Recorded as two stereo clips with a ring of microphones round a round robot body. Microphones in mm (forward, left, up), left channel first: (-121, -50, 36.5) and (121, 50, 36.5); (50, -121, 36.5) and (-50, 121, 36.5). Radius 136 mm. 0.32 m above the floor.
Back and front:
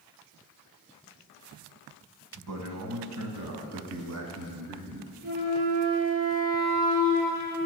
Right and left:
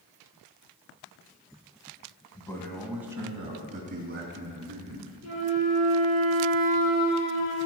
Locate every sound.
2.4 s a man speaking: 5° left, 2 m; by 5.1 s 70° left, 3.5 m
5.2 s a flute: 35° right, 4.5 m